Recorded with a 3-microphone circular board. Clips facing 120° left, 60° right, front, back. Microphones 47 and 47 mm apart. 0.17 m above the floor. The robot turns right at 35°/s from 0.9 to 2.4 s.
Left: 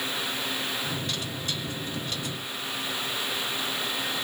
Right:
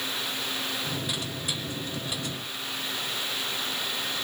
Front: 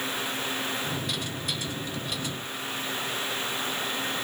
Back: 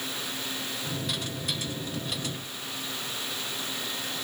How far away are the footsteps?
No footsteps in this recording.